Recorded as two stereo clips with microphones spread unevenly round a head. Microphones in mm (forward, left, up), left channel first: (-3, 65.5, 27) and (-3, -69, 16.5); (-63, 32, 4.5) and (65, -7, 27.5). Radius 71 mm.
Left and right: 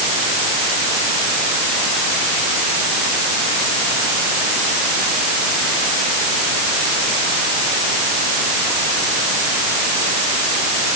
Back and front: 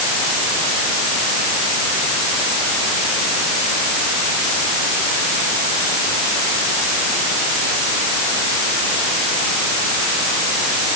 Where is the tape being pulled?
I don't hear tape being pulled.